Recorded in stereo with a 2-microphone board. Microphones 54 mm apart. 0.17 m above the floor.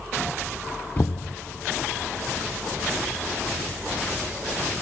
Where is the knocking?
35° left (ahead or behind), 0.9 m.